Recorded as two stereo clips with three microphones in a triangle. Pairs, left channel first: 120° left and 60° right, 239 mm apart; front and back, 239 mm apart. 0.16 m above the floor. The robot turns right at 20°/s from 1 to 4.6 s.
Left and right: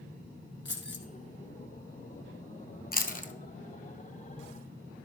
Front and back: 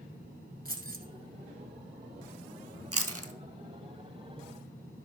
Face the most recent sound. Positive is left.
turn(degrees=-160)